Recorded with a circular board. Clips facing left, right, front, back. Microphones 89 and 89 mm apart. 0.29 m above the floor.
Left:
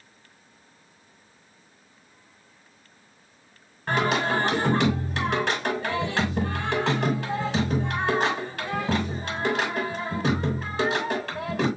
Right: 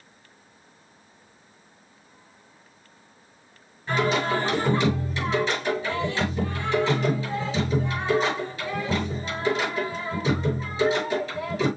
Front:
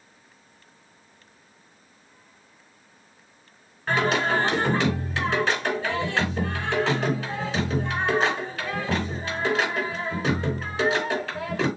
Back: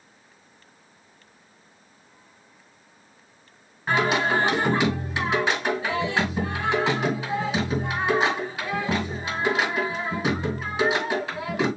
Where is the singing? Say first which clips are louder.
Even, back 1 dB; 105° left, 4 m.